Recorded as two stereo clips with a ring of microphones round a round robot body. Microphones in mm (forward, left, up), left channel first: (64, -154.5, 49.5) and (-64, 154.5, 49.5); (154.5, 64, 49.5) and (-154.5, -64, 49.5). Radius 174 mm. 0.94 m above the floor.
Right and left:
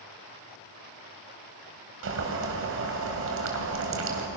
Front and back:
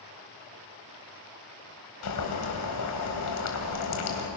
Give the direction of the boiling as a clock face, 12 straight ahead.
10 o'clock.